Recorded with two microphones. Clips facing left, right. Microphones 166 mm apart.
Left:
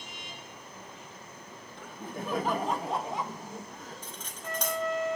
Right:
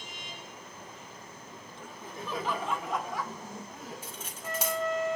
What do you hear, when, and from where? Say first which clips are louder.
1.8 s laughter: left 4 dB; 60° left (ahead or behind), 2.5 m; by 4.3 s 25° right (ahead or behind), 1.6 m
4.0 s cutlery clinking: right 1 dB; 5° right (ahead or behind), 5 m